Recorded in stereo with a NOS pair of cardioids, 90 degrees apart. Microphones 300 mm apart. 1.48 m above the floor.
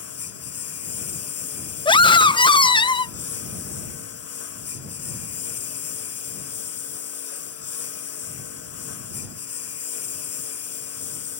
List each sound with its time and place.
0.0 s a lawn mower: 50° left
1.9 s a scream: 15° left